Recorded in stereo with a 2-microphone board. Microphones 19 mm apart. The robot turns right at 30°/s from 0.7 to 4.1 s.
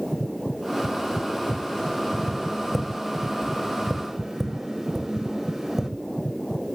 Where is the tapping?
35° left (ahead or behind), 1.8 m; by 5.9 s 20° right (ahead or behind), 1.8 m.